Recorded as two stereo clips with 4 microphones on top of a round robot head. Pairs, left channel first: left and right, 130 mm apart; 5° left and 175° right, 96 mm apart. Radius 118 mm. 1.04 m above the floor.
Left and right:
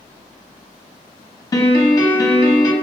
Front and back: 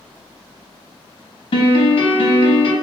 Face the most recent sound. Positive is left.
turn(degrees=25)